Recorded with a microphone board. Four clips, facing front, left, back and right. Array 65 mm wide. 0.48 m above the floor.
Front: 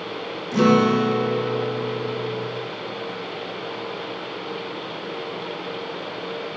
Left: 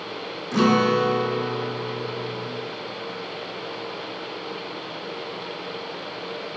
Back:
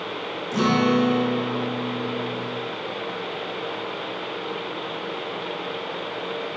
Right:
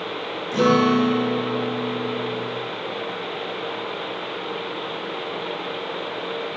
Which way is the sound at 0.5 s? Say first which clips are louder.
Right 2 dB, front 3 dB; 95° left.